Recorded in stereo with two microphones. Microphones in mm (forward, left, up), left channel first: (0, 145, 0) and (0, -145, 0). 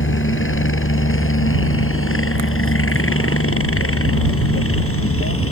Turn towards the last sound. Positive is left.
turn(degrees=50)  # may be behind; listen again after turning